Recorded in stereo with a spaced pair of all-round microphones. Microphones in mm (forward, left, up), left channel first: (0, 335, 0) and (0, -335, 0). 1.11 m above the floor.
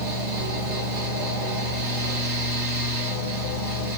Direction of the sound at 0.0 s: 60° right (ahead or behind).